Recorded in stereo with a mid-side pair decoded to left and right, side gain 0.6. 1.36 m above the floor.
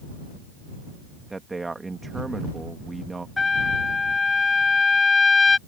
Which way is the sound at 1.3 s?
20° right.